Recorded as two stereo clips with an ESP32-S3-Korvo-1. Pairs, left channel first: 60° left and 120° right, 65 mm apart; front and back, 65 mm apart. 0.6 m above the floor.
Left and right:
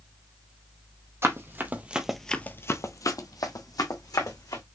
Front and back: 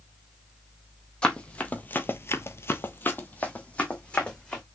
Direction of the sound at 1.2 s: 75° right.